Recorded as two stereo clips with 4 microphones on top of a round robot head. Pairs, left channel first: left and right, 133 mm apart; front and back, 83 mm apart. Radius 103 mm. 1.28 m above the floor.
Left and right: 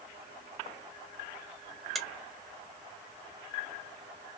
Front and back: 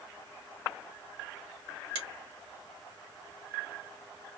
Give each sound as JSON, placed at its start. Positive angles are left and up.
{"t": 1.9, "sound": "a finger snap", "azimuth_deg": 180, "distance_m": 1.4}